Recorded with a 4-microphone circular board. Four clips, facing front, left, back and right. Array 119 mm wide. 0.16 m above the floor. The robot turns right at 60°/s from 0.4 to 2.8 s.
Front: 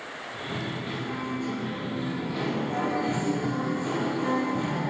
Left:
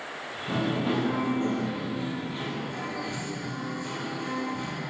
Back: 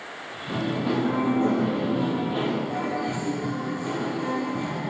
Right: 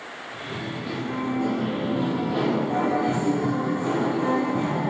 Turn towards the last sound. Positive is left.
turn(degrees=-90)